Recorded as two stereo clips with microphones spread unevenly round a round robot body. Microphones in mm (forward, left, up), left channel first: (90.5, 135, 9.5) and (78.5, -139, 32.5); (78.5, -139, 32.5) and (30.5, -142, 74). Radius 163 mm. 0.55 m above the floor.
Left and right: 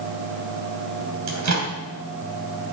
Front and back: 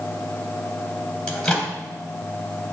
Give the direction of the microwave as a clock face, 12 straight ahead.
2 o'clock.